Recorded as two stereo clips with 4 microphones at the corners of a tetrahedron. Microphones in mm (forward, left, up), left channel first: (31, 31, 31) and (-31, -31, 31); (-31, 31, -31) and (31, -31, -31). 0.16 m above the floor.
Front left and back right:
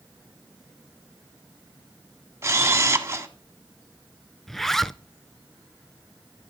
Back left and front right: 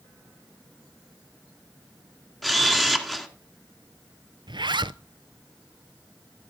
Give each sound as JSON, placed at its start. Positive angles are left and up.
{"t": 2.4, "sound": "a camera shutter", "azimuth_deg": -140, "distance_m": 1.6}
{"t": 4.5, "sound": "a zipper", "azimuth_deg": -40, "distance_m": 0.7}